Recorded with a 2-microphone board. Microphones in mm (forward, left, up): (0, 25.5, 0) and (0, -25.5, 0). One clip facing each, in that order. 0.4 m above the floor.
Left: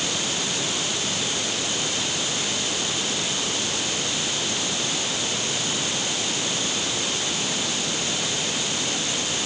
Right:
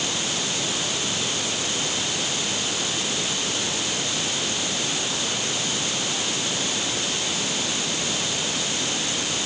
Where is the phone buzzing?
I don't hear a phone buzzing.